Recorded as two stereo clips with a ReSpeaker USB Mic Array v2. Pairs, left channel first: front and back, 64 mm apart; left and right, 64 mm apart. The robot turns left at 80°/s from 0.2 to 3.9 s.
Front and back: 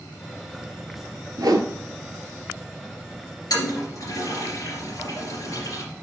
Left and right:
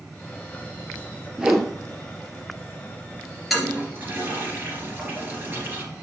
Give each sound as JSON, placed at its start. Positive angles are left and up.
{"t": 1.4, "sound": "a whoosh", "azimuth_deg": -165, "distance_m": 0.9}
{"t": 3.5, "sound": "a toilet flushing", "azimuth_deg": 0, "distance_m": 2.5}